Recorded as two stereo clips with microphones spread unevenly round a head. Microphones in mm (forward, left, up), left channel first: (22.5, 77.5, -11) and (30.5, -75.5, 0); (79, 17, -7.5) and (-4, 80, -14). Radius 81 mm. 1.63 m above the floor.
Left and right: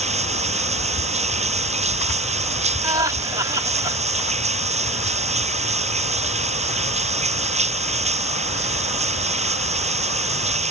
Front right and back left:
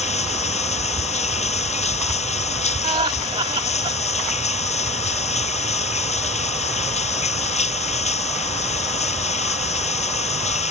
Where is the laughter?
155° right.